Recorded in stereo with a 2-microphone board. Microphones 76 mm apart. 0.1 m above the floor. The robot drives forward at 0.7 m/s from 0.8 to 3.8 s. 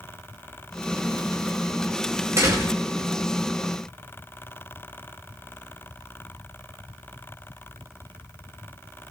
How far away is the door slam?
About 6.5 m.